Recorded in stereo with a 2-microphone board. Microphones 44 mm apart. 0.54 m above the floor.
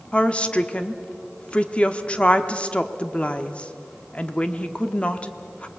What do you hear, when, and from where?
0.1 s a woman speaking: 30° left (ahead or behind), 0.9 m